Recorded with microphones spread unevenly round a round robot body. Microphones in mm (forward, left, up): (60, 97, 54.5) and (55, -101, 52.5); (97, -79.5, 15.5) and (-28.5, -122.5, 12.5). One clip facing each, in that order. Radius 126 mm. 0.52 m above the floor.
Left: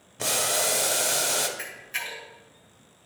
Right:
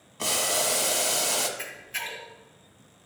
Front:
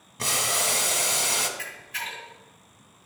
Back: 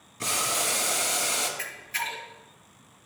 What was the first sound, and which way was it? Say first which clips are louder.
Boiling: left 1 dB, front 1 dB; 15° left.